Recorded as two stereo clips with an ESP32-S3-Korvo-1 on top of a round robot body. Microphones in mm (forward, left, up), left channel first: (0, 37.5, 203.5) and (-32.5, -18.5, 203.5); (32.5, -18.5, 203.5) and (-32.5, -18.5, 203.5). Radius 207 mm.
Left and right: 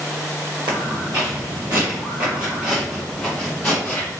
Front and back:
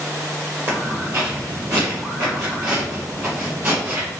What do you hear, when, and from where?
0.7 s footsteps: 130° right, 1.5 m; by 4.1 s 125° left, 1.7 m